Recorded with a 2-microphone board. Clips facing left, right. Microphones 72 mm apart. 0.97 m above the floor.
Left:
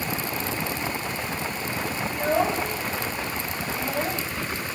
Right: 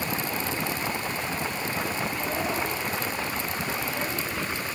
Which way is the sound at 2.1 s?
85° left.